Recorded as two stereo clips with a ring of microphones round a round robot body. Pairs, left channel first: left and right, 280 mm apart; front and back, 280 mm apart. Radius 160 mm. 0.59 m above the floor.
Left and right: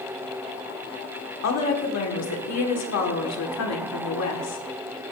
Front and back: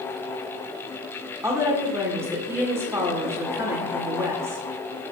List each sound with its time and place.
1.4 s a woman speaking: 100° left, 2.0 m